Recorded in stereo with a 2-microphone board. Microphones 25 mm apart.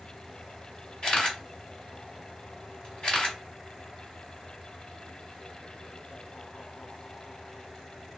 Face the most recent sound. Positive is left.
turn(degrees=45)  # may be behind; listen again after turning